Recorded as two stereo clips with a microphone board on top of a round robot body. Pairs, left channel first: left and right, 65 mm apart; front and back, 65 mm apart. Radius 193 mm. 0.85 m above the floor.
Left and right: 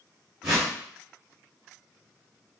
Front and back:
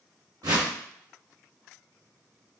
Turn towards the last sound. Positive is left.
turn(degrees=-160)